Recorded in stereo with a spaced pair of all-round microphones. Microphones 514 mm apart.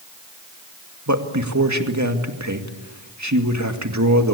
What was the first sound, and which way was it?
A man speaking, 30° right (ahead or behind).